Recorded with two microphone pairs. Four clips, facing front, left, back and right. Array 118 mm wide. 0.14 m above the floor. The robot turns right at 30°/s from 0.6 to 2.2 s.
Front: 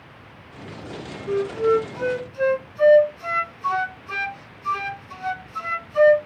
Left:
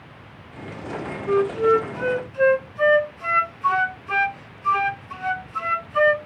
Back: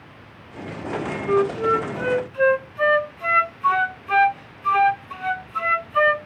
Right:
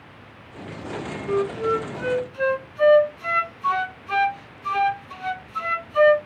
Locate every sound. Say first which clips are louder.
1.3 s a flute: left 5 dB, even; 125° left, 0.6 m; by 6.2 s 155° left, 0.6 m